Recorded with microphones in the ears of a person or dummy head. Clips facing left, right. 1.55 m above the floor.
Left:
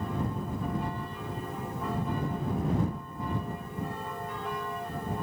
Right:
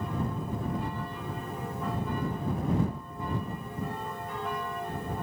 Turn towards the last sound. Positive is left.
No sound to turn to.